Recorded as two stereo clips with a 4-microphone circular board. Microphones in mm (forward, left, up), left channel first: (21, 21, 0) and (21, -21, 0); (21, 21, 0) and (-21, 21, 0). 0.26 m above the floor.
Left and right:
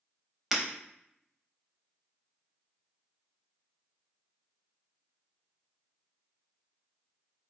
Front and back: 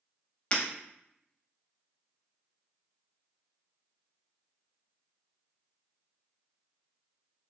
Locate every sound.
0.5 s breaking glass: 10° right, 0.8 m